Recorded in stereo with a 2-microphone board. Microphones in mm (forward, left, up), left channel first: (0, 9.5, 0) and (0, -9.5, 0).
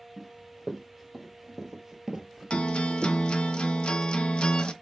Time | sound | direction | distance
0.2 | running footsteps | 10° right (ahead or behind) | 1.9 m
2.5 | a guitar | 55° left (ahead or behind) | 0.7 m